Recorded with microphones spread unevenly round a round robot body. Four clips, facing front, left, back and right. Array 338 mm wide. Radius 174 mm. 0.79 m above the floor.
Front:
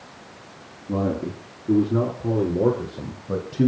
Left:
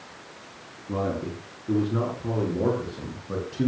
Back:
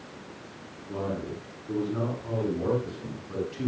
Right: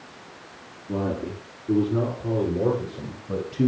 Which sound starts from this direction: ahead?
A man speaking, at 0.9 s.